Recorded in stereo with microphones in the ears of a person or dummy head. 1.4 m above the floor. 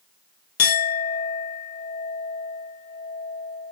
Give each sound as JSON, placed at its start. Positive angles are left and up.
{"t": 0.6, "sound": "a clink", "side_deg": 45, "distance_m": 0.6}